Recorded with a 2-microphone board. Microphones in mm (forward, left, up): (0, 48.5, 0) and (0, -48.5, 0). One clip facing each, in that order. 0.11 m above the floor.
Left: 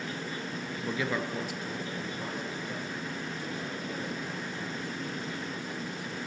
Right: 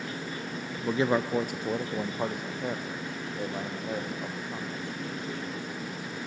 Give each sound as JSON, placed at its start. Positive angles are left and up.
{"t": 0.7, "sound": "a man speaking", "side_deg": -15, "distance_m": 1.1}